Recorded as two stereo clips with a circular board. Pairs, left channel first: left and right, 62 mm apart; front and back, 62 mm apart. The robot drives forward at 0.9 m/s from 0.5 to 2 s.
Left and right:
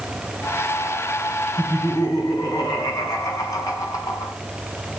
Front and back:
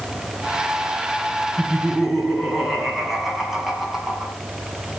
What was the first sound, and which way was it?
Laughter, 90° left.